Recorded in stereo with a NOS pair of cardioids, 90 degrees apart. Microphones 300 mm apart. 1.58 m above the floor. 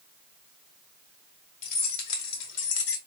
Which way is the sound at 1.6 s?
65° left.